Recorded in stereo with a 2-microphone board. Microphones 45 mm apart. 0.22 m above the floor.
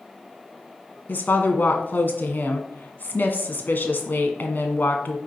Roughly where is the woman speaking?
Left.